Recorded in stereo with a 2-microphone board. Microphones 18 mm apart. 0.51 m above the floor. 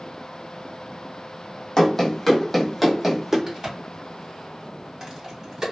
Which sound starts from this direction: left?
Running footsteps, at 1.8 s.